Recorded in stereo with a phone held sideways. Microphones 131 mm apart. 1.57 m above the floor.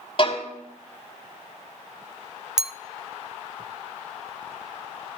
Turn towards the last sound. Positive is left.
turn(degrees=-5)  # may be behind; listen again after turning